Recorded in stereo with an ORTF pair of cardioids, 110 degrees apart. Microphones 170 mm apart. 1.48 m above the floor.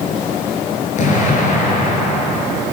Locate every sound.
1.0 s an explosion: 50° left, 5.5 m